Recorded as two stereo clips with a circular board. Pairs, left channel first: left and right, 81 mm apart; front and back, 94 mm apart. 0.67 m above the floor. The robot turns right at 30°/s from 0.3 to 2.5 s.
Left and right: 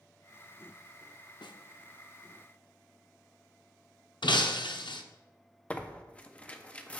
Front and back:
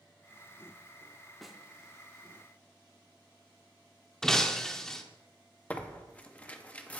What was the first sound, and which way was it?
A snare drum, 90° left.